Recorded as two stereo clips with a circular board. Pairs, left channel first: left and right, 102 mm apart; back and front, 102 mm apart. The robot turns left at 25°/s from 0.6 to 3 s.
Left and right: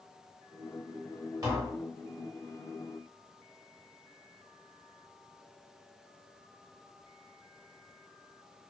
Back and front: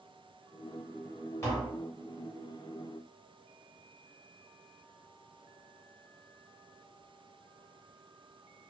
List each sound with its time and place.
1.4 s tapping: 130° right, 1.1 m; by 1.8 s 140° right, 1.1 m